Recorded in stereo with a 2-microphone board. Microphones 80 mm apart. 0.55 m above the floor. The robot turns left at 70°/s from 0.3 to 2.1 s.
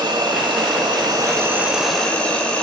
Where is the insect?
70° right, 1.0 m; by 2.6 s 165° left, 1.0 m.